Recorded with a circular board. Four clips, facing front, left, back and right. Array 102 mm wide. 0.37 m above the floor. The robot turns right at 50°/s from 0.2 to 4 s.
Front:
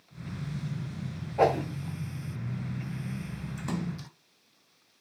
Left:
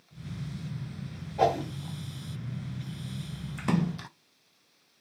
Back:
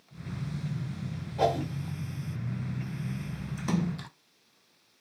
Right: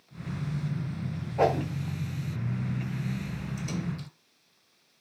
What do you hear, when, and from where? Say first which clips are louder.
1.4 s a whoosh: even, front 3 dB; 40° right, 1.3 m; by 1.7 s 25° right, 1.3 m
3.6 s a splash: left 9 dB, back 5 dB; 95° left, 0.5 m; by 4.1 s 115° left, 0.5 m